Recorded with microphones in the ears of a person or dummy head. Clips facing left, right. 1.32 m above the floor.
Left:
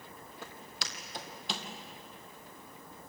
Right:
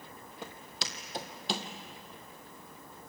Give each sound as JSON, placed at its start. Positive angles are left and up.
{"t": 0.4, "sound": "footsteps", "side_deg": -15, "distance_m": 2.5}